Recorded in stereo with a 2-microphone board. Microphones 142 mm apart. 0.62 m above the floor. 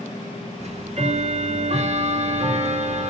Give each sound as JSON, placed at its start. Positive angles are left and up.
{"t": 0.6, "sound": "ticking", "side_deg": -50, "distance_m": 2.5}